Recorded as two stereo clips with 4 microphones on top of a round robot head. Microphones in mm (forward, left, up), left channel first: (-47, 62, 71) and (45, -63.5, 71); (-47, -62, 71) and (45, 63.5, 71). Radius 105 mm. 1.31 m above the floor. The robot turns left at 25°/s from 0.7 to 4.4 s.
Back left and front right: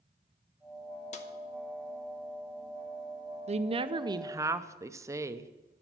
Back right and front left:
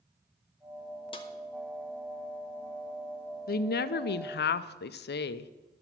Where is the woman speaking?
100° right, 0.6 m; by 5.5 s 125° right, 0.6 m.